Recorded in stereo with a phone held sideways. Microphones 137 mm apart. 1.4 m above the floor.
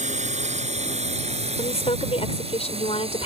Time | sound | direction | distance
0.0 | a drone | 60° right (ahead or behind) | ?
1.6 | a woman speaking | 50° left (ahead or behind) | ?